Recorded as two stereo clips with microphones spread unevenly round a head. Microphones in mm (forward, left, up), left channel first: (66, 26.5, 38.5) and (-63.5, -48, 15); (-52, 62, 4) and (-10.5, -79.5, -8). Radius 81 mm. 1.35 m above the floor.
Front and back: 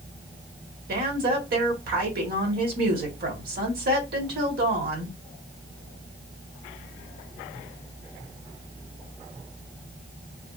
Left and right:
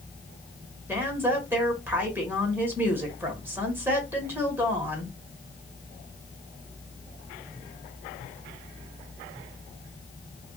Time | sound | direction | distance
0.9 | a woman speaking | 150° right | 1.4 m